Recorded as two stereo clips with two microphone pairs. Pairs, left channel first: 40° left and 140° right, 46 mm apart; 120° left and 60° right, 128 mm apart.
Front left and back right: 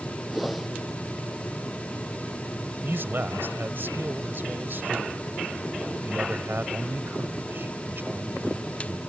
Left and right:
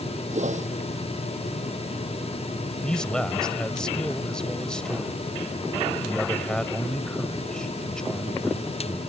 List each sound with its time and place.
0.3 s a whoosh: 55° right
2.8 s a man speaking: 160° right